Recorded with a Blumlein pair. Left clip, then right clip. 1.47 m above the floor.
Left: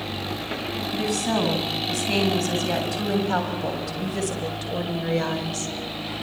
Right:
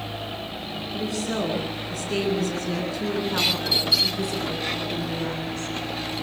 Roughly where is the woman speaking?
Ahead left.